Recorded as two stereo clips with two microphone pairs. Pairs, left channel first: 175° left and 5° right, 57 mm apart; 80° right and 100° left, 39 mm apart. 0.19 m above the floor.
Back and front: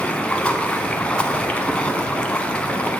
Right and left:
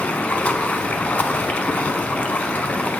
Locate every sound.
0.0 s running water: 120° right, 0.9 m